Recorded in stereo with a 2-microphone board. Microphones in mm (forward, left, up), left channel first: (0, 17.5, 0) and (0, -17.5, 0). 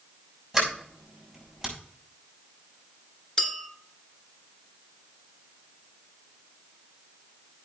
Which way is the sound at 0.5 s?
Centre (ahead or behind).